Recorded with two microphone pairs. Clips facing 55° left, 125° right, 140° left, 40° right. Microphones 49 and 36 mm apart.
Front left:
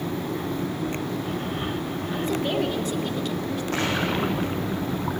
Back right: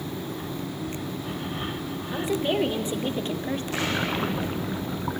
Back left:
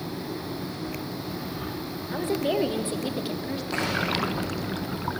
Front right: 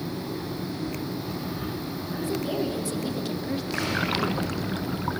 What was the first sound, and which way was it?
A woman speaking, 160° left.